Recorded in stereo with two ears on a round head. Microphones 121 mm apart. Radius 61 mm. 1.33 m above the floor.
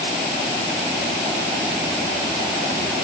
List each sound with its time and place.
Only background noise.